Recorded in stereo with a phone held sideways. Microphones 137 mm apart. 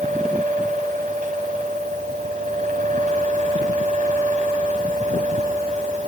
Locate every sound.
0.0 s a fan: 70° right (ahead or behind), 6 m